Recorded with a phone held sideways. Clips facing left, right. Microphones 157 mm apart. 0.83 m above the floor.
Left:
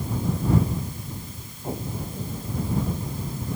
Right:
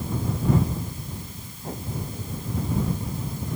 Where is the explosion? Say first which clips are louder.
Left 2 dB; 15° left (ahead or behind).